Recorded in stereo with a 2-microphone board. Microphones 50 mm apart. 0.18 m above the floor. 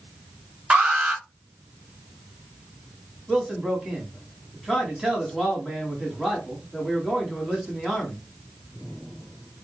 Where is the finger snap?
I don't hear a finger snap.